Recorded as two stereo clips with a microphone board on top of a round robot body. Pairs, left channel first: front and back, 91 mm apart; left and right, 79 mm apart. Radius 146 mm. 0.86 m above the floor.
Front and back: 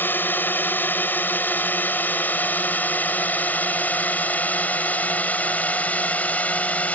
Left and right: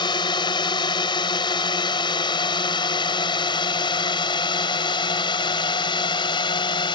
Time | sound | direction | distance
0.0 | a drone | 70° left | ?